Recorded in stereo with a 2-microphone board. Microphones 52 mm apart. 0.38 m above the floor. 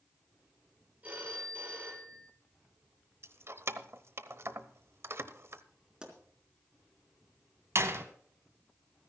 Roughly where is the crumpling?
No crumpling in this recording.